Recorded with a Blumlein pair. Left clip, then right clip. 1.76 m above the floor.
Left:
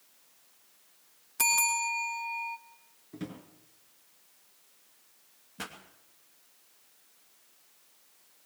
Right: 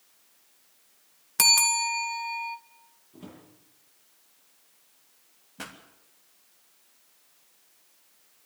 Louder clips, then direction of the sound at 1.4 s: Right 6 dB; 35° right.